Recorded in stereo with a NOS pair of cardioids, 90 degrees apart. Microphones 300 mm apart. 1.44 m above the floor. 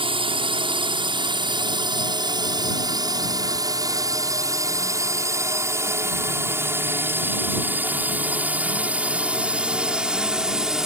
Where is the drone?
15° right; by 10.9 s straight ahead.